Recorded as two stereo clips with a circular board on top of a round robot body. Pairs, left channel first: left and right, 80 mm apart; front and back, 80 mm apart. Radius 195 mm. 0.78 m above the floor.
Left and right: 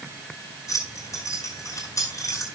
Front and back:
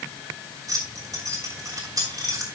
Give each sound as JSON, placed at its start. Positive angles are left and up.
{"t": 0.7, "sound": "keys jangling", "azimuth_deg": 135, "distance_m": 5.0}